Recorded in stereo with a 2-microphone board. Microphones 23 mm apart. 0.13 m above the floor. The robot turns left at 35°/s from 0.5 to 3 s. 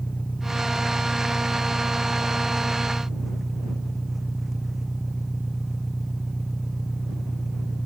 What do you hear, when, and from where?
0.0 s an engine running: 80° left; by 7.9 s 5° right